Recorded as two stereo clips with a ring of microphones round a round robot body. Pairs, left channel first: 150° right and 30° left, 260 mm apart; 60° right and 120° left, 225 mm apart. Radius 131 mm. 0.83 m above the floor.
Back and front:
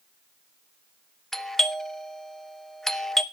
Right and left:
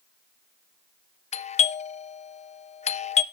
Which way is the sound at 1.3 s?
65° right.